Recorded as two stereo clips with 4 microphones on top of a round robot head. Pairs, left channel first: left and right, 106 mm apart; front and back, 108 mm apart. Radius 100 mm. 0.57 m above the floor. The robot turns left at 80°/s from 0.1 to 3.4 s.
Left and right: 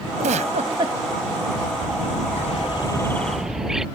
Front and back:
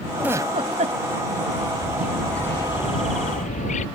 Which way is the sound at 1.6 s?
140° left.